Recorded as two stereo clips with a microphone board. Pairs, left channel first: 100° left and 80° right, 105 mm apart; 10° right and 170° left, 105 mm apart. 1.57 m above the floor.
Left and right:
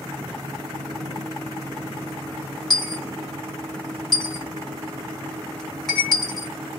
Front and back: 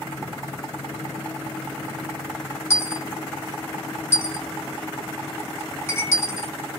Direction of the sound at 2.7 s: 20° left.